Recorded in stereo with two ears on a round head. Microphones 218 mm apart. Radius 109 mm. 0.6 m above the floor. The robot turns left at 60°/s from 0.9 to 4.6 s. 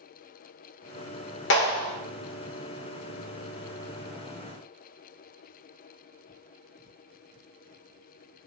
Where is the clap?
50° left (ahead or behind), 1.5 m; by 1.9 s 25° left (ahead or behind), 1.5 m.